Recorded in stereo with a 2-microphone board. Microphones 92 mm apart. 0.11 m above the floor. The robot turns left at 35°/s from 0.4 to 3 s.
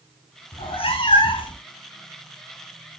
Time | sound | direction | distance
0.5 | a cat meowing | 95° left | 1.1 m